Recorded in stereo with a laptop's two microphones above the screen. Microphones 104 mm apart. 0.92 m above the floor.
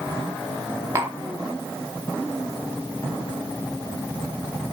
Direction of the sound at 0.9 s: 25° right (ahead or behind).